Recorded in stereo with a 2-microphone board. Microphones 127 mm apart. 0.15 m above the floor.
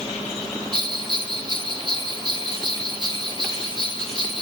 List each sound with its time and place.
0.7 s a bell: 40° right (ahead or behind), 3 m